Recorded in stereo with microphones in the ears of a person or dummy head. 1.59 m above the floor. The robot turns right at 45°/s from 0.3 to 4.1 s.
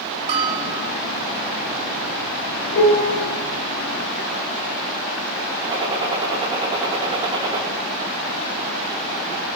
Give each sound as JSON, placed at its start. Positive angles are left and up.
{"t": 0.3, "sound": "a bell", "side_deg": -25, "distance_m": 1.0}
{"t": 2.7, "sound": "a piano", "side_deg": 70, "distance_m": 3.0}
{"t": 5.6, "sound": "a gunshot", "side_deg": -30, "distance_m": 3.5}